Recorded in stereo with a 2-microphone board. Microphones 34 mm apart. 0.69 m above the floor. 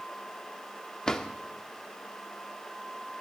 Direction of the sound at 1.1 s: 20° left (ahead or behind).